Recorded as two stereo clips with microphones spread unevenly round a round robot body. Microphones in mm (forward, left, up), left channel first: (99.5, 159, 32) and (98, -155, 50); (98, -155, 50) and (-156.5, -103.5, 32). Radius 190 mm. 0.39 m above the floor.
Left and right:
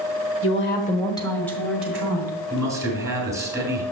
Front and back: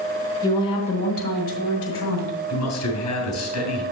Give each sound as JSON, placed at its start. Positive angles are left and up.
{"t": 0.4, "sound": "a woman speaking", "azimuth_deg": 60, "distance_m": 1.3}
{"t": 2.5, "sound": "a man speaking", "azimuth_deg": -10, "distance_m": 3.5}